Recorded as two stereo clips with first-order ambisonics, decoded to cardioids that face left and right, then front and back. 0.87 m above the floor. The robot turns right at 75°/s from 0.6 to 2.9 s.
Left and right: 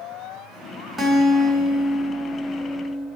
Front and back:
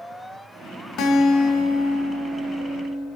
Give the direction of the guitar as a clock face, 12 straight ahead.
1 o'clock.